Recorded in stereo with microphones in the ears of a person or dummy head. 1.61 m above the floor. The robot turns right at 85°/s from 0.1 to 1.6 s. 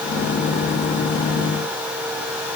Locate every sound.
Only background noise.